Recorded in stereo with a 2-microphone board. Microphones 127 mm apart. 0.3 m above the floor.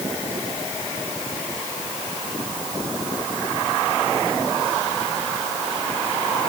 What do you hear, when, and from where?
Only background noise.